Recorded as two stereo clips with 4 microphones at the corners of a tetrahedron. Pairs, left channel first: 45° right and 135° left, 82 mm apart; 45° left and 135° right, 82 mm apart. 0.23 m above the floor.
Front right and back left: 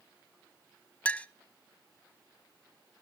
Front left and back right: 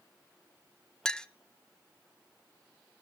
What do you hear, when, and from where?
1.1 s a clink: 20° right, 0.6 m